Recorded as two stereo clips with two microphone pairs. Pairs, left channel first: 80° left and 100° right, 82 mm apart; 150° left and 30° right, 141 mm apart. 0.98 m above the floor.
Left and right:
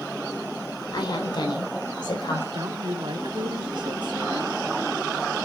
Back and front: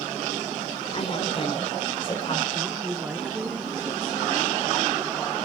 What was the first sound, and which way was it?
A woman speaking, 105° left.